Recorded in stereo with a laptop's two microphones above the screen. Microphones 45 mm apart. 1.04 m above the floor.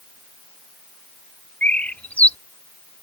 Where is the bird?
35° left (ahead or behind).